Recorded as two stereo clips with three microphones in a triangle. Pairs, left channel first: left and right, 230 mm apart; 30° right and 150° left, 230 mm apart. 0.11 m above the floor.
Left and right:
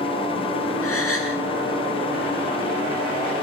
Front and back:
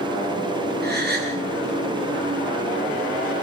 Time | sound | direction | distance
0.8 | a gasp | 105° left | 7 m